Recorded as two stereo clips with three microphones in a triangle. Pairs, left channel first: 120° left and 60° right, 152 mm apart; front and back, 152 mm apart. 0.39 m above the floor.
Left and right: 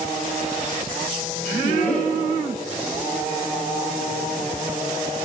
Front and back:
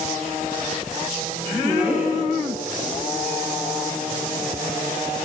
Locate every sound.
1.6 s a woman speaking: 100° left, 4 m